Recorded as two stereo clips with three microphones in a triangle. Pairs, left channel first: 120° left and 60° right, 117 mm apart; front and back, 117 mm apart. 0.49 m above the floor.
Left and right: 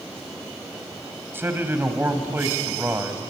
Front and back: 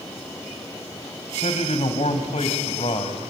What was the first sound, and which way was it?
A man speaking, 10° left.